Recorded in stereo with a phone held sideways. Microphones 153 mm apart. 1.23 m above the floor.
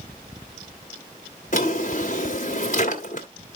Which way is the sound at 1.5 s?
55° left (ahead or behind).